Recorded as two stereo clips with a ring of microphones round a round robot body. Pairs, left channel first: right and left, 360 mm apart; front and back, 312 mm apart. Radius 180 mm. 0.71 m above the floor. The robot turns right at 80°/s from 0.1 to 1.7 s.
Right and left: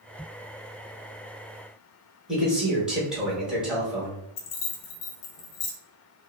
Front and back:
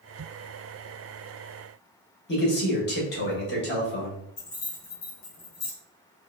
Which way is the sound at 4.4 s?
60° right.